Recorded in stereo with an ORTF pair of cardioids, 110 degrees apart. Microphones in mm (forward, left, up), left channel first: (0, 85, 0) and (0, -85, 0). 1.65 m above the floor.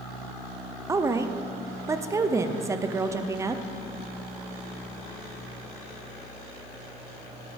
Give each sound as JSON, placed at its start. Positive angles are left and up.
{"t": 0.9, "sound": "a woman speaking", "azimuth_deg": -20, "distance_m": 0.5}